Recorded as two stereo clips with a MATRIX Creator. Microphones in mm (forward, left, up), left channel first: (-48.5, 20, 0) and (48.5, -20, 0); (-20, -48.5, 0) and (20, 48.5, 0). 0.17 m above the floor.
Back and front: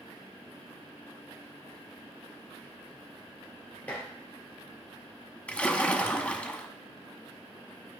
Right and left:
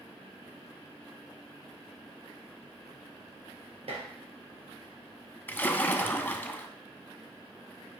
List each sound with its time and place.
3.9 s dishes clattering: 80° left, 2 m
5.5 s a splash: 145° right, 0.6 m